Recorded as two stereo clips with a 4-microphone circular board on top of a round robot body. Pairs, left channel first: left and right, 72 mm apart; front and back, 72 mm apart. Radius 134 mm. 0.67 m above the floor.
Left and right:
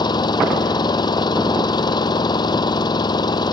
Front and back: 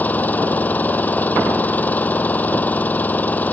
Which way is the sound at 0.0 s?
70° left.